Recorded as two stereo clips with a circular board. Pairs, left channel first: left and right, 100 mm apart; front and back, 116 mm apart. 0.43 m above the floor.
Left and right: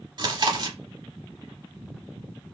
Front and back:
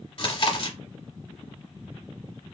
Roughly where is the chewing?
Ahead right.